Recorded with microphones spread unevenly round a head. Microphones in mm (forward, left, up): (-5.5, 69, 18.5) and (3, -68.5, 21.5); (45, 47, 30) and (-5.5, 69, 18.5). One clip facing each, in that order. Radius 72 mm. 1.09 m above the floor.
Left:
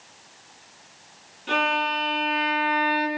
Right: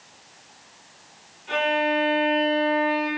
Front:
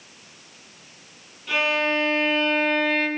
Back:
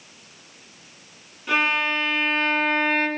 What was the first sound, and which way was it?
A violin, 115° left.